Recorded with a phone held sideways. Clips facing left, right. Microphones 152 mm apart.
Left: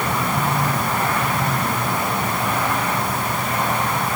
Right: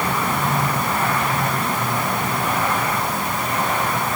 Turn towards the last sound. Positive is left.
No sound to turn to.